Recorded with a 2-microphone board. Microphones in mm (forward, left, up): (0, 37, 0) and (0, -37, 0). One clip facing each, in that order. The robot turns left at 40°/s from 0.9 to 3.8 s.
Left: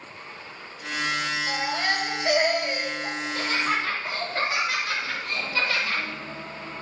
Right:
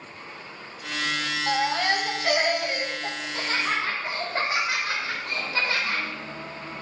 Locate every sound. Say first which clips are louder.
1.5 s a baby crying: right 6 dB; 75° right, 2.5 m; by 3.1 s 140° right, 2.5 m
3.2 s laughter: left 2 dB; 50° right (ahead or behind), 4 m; by 6.0 s 25° right (ahead or behind), 4 m